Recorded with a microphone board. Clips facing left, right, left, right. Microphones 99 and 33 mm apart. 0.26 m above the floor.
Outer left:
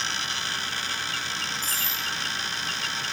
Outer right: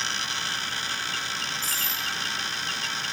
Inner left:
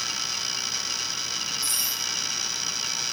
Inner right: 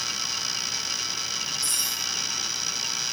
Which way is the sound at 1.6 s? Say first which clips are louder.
Even, even; 15° left (ahead or behind).